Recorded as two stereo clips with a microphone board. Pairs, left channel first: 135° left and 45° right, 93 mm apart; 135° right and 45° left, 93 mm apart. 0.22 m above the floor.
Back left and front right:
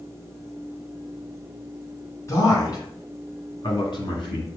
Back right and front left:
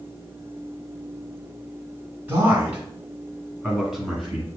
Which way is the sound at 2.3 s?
105° left.